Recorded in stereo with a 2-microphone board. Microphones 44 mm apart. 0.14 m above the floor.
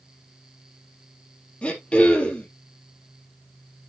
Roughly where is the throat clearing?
Left.